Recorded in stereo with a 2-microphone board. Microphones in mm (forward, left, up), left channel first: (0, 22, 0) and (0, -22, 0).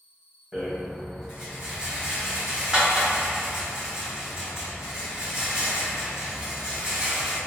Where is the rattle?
20° right (ahead or behind), 1.2 m.